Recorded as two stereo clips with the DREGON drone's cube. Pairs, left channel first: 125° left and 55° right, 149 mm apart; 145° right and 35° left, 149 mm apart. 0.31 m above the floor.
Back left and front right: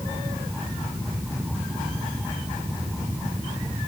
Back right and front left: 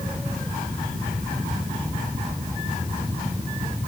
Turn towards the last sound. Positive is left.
No sound to turn to.